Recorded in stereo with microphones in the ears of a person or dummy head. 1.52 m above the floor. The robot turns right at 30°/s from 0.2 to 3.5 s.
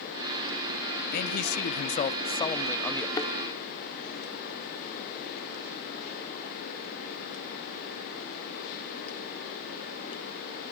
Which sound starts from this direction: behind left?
A man speaking, at 1.1 s.